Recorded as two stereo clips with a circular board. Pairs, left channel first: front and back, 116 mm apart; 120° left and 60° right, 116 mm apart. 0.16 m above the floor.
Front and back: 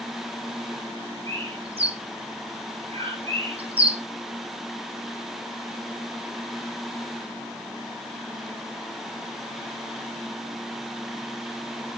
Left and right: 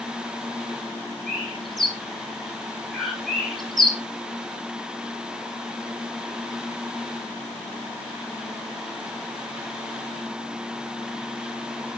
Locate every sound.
1.3 s a bird: 150° right, 6 m